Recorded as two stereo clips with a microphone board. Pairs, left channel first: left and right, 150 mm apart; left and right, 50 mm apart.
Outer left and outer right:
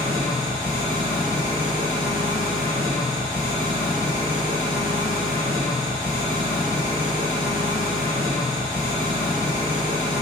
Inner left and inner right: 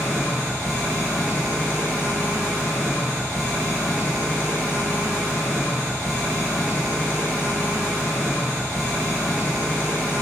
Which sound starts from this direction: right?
An engine running, at 0.0 s.